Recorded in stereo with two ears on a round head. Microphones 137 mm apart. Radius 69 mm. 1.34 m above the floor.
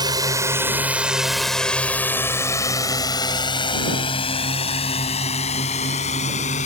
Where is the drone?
30° right (ahead or behind); by 6.7 s 50° left (ahead or behind).